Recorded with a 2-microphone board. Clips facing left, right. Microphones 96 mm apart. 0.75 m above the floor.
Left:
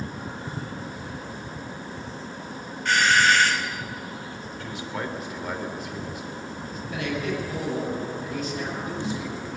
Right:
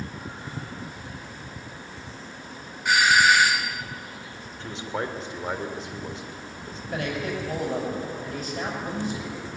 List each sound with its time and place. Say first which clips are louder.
2.9 s a doorbell: right 1 dB; 10° right (ahead or behind), 0.9 m
4.6 s a man speaking: right 2 dB; 30° right (ahead or behind), 3 m
6.9 s a man speaking: even; 55° right (ahead or behind), 6 m